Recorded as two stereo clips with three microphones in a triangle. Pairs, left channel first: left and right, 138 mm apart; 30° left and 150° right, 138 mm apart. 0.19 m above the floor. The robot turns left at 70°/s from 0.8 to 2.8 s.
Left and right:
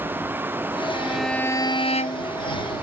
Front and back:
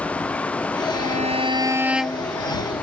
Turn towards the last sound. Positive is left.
turn(degrees=70)